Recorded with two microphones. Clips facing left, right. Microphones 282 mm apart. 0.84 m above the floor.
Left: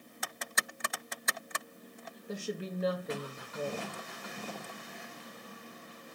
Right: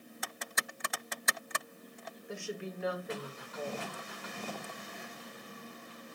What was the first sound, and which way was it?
A woman speaking, 45° left (ahead or behind).